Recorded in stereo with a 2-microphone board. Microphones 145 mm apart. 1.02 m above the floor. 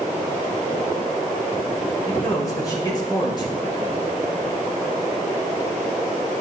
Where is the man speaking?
25° left (ahead or behind), 5.5 m; by 4.1 s 35° left (ahead or behind), 4.5 m.